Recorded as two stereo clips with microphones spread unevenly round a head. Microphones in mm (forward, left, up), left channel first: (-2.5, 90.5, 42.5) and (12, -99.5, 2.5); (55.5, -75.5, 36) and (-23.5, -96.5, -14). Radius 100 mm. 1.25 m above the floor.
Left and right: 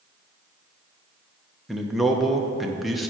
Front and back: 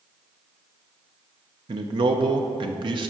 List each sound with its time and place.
1.7 s a man speaking: 175° right, 0.7 m